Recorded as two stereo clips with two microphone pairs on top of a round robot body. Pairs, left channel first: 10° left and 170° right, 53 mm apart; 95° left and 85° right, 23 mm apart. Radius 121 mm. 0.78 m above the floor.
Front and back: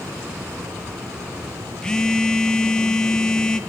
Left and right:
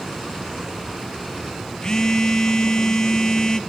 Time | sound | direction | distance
1.8 | a phone buzzing | 80° left | 1.1 m